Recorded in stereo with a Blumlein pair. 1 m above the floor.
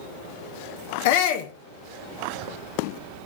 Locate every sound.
1.1 s a shout: 50° left, 0.9 m